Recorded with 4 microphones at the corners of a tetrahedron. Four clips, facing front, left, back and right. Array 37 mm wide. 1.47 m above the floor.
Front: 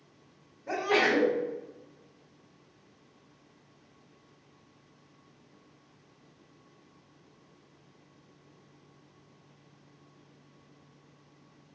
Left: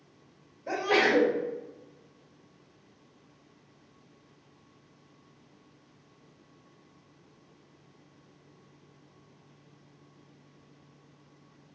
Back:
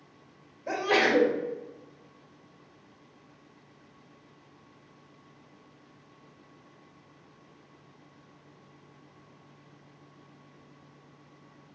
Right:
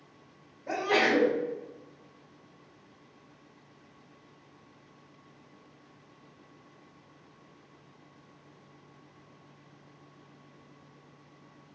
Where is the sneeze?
150° left, 1.4 m.